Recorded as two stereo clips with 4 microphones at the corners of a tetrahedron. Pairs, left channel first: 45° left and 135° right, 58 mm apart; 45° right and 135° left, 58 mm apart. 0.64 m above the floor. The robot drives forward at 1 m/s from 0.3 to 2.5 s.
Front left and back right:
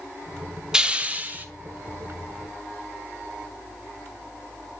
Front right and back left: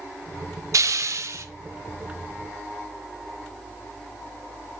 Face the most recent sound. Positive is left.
turn(degrees=170)